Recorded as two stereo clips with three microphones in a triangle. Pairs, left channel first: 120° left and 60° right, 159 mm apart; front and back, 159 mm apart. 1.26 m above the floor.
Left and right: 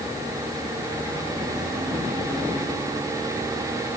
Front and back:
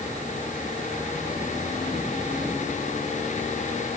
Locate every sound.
Only background noise.